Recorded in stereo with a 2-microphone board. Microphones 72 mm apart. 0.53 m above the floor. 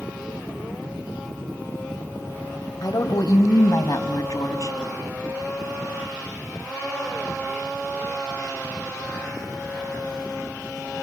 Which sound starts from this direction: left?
A woman speaking, at 2.8 s.